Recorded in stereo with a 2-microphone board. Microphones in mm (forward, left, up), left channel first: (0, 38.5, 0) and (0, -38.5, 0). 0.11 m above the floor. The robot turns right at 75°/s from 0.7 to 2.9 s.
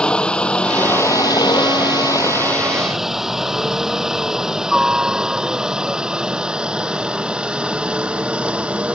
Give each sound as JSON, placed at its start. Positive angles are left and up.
{"t": 0.0, "sound": "a helicopter", "side_deg": 10}